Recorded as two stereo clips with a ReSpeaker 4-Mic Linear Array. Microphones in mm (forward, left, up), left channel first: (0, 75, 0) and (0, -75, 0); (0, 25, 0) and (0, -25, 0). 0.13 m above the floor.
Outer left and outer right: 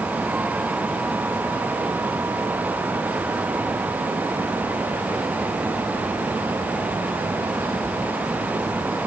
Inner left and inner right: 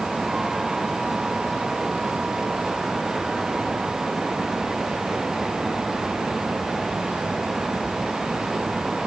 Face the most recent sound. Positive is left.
No sound to turn to.